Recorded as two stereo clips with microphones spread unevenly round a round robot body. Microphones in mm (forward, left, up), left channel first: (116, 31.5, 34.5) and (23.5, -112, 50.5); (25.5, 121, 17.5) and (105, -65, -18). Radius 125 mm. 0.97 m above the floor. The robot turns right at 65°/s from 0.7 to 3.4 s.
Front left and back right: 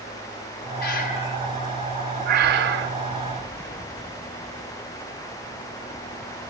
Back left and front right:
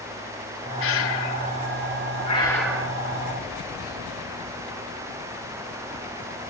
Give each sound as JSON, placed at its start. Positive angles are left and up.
{"t": 0.8, "sound": "breathing", "azimuth_deg": 90, "distance_m": 1.1}